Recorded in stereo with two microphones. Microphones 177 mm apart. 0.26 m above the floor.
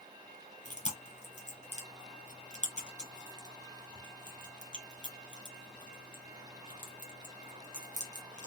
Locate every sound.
0.7 s chewing: 40° left (ahead or behind), 1.9 m